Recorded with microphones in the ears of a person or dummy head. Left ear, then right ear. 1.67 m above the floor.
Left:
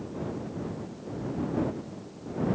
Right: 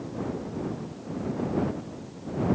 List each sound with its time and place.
Only background noise.